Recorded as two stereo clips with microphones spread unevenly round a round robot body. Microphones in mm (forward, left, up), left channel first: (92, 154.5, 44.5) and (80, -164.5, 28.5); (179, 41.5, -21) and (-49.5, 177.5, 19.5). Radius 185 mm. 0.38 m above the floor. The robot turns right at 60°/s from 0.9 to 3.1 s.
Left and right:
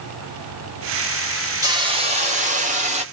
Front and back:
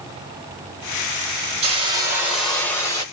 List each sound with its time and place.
1.6 s a hiss: 150° right, 1.3 m; by 3.0 s 65° right, 1.3 m